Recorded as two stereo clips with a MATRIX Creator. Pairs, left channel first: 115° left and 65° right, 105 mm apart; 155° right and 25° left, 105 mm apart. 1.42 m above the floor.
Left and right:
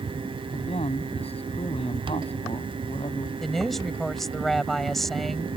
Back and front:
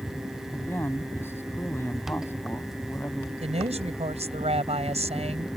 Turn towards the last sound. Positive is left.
turn(degrees=25)